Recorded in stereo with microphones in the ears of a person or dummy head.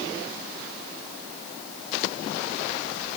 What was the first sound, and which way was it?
Only background noise.